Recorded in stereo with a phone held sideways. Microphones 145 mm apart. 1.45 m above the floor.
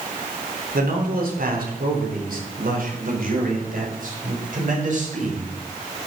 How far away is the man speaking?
About 3.5 m.